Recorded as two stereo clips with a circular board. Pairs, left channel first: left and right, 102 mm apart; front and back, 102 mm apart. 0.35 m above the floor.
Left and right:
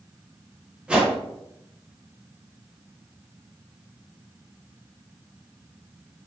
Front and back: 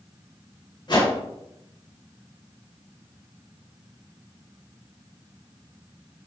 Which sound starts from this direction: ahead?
A whoosh, at 0.9 s.